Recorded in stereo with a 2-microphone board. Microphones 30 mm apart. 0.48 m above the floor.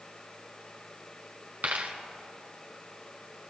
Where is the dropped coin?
65° right (ahead or behind), 1.7 m.